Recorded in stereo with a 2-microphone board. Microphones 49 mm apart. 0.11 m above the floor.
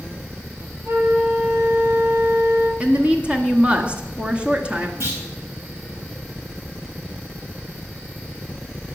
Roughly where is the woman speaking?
Right.